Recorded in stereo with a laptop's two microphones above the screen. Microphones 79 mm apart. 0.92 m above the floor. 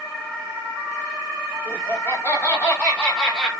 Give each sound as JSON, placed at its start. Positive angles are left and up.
{"t": 1.6, "sound": "laughter", "side_deg": 30, "distance_m": 2.5}